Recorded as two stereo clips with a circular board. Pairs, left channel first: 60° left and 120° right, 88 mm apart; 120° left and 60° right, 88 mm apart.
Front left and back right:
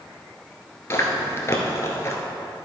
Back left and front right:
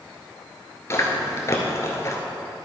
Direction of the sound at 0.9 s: 90° left.